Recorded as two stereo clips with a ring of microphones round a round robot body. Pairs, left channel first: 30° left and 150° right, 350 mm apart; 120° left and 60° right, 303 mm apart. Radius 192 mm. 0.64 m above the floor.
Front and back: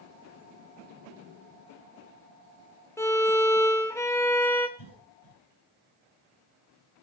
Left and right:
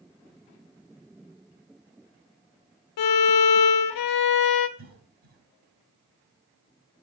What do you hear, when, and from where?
3.0 s a violin: 115° left, 0.7 m
4.8 s a cough: straight ahead, 5 m